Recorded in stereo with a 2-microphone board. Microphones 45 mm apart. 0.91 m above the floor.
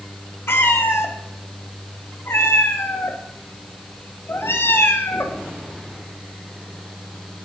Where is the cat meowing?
60° left (ahead or behind), 0.9 m.